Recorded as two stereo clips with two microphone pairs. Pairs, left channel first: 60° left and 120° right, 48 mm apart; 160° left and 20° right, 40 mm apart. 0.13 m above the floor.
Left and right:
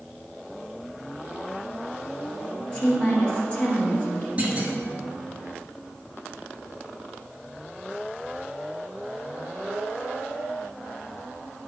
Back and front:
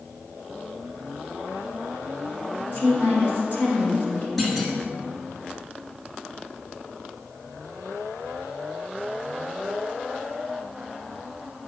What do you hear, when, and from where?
2.7 s a woman speaking: 125° left, 2.5 m
4.4 s a clunk: 105° right, 1.4 m